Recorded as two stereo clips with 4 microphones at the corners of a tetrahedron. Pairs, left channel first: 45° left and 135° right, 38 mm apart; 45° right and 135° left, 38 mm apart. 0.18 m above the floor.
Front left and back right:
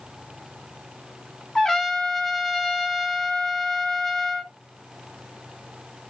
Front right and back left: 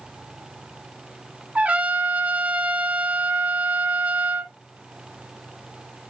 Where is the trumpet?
125° left, 1.1 m.